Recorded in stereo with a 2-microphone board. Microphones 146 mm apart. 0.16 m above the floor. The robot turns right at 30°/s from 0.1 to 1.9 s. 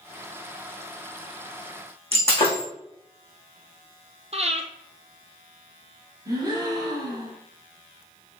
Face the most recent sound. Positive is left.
turn(degrees=-30)  # may be behind; listen again after turning